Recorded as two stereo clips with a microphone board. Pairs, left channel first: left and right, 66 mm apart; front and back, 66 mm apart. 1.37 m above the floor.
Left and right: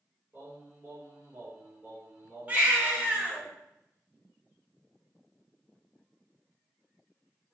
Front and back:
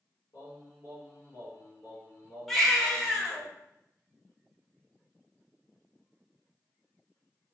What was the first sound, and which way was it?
Singing, 30° right.